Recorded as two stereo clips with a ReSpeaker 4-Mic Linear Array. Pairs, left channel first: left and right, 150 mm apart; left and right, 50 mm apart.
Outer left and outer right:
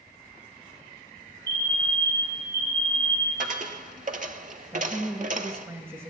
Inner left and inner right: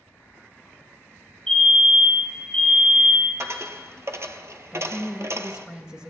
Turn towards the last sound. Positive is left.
turn(degrees=-15)  # may be behind; listen again after turning